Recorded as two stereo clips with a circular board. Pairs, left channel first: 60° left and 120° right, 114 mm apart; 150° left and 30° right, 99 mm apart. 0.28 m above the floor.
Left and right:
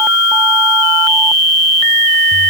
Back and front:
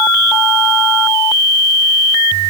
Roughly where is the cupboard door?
I don't hear a cupboard door.